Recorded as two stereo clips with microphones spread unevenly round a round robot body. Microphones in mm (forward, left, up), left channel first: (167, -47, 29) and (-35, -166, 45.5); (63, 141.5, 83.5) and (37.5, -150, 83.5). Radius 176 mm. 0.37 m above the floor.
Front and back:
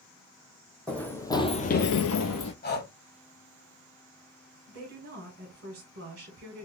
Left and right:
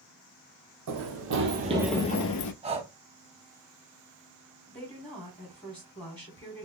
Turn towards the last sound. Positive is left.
turn(degrees=170)